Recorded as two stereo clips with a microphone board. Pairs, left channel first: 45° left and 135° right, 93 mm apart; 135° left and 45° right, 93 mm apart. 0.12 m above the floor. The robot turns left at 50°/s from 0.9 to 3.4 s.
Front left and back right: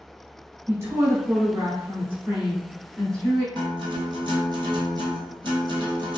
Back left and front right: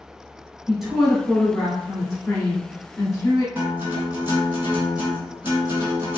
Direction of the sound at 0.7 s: 125° right.